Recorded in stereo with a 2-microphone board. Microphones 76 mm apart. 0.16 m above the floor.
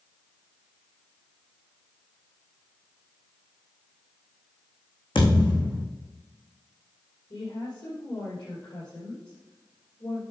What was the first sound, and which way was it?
A thud, 85° left.